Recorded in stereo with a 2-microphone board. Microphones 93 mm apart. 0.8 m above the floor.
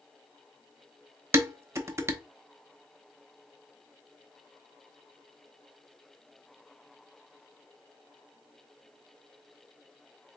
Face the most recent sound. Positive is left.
turn(degrees=-30)  # may be behind; listen again after turning